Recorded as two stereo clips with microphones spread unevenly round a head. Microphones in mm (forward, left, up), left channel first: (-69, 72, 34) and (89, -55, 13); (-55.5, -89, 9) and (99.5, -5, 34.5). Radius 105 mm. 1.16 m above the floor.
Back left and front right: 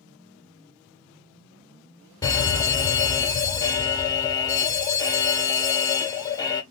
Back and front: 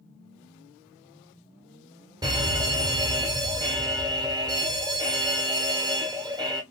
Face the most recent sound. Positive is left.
turn(degrees=80)